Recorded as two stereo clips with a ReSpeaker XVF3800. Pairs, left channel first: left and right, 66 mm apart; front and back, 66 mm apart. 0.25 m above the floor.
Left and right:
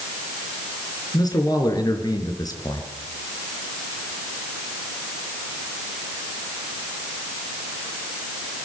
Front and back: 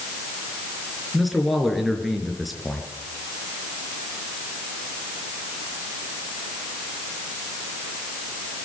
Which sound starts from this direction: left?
A man speaking, at 1.1 s.